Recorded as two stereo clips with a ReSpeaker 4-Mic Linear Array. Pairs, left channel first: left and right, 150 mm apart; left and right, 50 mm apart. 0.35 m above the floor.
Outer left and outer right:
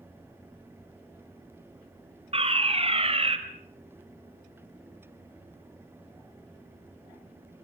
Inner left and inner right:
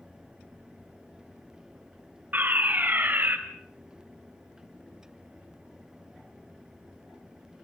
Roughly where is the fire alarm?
Right.